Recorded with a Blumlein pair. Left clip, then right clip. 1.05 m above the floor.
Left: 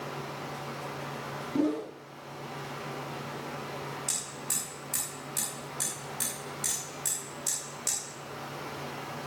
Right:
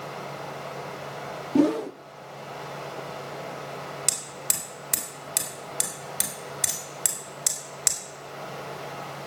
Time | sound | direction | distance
0.0 | running water | 65° right | 4 m
1.6 | a whoosh | 25° right | 0.5 m
4.1 | hammering | 40° right | 4 m